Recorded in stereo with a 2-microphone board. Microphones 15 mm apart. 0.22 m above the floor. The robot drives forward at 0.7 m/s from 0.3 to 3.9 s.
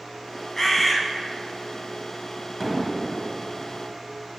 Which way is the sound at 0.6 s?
20° left (ahead or behind).